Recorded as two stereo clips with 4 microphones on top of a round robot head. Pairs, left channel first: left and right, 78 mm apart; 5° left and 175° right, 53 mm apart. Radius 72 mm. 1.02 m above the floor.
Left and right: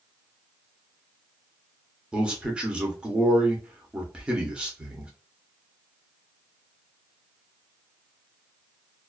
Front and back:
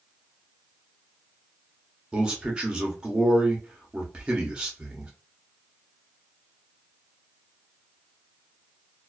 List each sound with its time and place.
2.1 s a man speaking: 140° right, 0.8 m